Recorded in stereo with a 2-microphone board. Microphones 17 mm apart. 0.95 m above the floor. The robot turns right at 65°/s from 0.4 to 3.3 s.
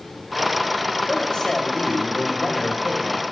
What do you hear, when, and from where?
1.1 s a woman speaking: 30° left, 2.5 m; by 3.2 s 170° left, 2.5 m